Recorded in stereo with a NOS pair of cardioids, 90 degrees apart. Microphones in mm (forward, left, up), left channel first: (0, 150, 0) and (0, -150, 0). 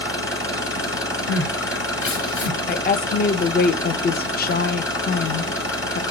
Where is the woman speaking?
30° left, 0.6 m.